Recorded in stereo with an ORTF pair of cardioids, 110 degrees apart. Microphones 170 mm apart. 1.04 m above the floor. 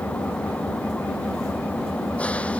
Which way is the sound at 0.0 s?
5° left.